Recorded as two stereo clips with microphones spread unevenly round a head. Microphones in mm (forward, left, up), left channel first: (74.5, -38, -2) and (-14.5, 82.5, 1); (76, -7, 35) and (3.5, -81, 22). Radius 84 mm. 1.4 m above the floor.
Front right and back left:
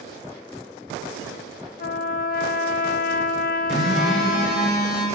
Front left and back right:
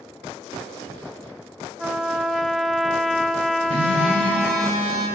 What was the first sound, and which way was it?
A trumpet, 50° right.